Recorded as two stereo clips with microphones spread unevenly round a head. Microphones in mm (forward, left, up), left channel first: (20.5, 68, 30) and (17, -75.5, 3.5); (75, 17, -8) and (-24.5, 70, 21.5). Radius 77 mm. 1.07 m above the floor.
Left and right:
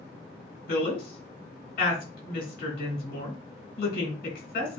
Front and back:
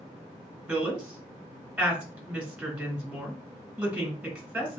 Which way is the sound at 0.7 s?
70° left.